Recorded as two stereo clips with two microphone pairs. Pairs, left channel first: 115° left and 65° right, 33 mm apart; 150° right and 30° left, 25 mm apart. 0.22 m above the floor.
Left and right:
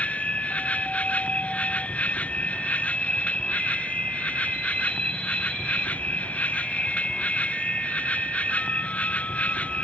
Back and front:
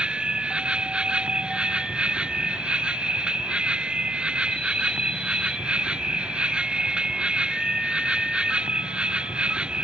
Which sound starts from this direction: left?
An insect, at 0.0 s.